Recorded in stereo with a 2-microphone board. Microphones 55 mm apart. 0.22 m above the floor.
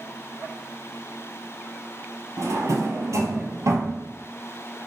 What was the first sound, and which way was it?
A drawer, 85° right.